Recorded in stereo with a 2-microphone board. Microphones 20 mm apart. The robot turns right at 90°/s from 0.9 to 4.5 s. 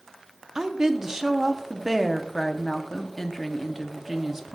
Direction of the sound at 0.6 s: 25° right (ahead or behind).